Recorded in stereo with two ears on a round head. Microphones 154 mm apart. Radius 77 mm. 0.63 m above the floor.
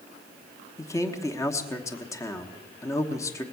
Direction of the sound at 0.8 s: 20° left (ahead or behind).